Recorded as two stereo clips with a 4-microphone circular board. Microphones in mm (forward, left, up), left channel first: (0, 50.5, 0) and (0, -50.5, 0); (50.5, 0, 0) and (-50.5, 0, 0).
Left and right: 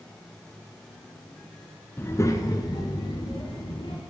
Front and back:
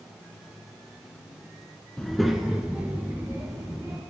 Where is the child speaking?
80° left, 0.8 m; by 4.0 s 120° left, 1.6 m.